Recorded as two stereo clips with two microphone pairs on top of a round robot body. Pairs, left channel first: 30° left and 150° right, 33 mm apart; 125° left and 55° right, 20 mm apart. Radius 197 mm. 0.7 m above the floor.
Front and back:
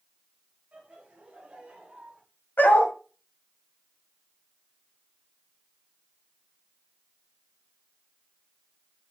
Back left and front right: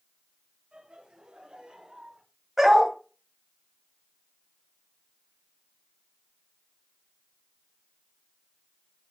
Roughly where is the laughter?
Right.